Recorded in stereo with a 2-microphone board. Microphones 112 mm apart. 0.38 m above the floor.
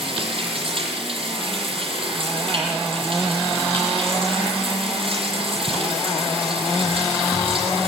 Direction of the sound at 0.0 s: 55° right (ahead or behind).